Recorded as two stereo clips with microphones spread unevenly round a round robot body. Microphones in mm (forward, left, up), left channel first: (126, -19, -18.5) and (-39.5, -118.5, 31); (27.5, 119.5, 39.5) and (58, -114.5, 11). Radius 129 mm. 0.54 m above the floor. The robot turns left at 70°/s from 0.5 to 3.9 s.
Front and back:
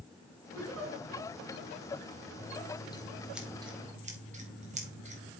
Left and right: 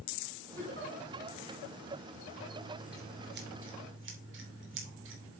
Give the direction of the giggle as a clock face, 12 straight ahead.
6 o'clock.